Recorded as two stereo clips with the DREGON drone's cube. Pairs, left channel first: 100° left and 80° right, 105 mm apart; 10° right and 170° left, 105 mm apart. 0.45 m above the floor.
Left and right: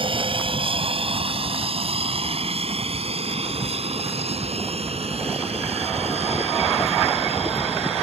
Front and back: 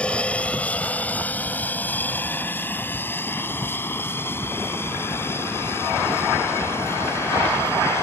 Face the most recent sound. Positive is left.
turn(degrees=-75)